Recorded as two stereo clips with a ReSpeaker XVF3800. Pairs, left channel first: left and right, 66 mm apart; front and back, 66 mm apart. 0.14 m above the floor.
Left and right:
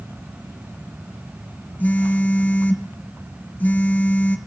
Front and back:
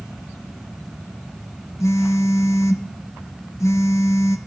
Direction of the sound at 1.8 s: 30° left.